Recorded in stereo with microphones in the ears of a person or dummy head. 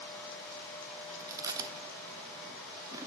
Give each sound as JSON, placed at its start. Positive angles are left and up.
{"t": 1.2, "sound": "chewing", "side_deg": -20, "distance_m": 0.6}